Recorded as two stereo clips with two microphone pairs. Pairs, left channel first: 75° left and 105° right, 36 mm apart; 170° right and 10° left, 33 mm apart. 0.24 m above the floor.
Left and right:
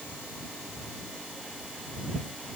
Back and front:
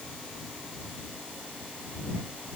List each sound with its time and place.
Only background noise.